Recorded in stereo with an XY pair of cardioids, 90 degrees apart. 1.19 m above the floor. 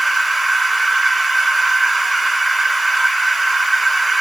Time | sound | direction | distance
0.0 | a machine running | 15° right | 1.2 m